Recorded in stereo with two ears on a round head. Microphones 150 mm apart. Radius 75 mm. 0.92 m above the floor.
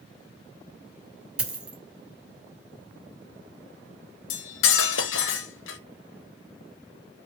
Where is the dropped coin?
5° right (ahead or behind), 1.2 m.